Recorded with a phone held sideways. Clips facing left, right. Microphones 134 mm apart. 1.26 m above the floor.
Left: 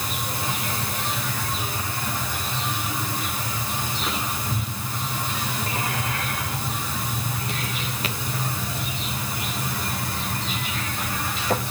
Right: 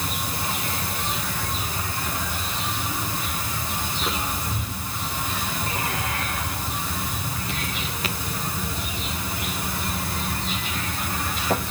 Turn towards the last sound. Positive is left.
No sound to turn to.